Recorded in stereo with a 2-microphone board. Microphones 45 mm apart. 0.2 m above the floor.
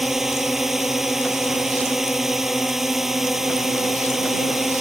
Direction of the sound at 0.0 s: 5° right (ahead or behind).